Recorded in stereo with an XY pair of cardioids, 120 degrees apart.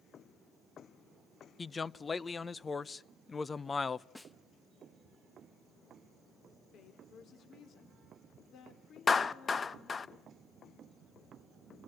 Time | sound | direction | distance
1.6 | a man speaking | 25° left | 0.7 m
4.2 | a snare drum | 10° left | 0.8 m
6.7 | a woman speaking | 60° left | 4.5 m
9.1 | a clap | 30° left | 0.7 m